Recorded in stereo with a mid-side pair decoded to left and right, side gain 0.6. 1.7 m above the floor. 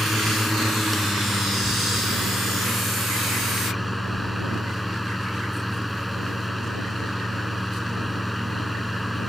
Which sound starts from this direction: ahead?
A fan, at 0.0 s.